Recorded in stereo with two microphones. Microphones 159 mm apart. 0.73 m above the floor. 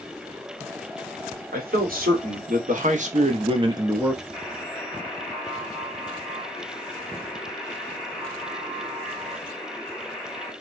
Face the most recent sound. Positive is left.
turn(degrees=5)  # may be behind; listen again after turning